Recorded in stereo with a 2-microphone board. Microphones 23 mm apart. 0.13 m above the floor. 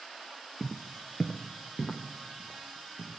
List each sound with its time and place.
0.6 s footsteps: 10° left (ahead or behind), 0.5 m; by 3.1 s centre (ahead or behind), 1.9 m